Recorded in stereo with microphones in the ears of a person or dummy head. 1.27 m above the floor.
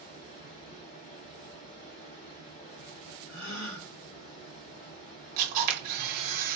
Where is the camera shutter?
50° right (ahead or behind), 1.4 m.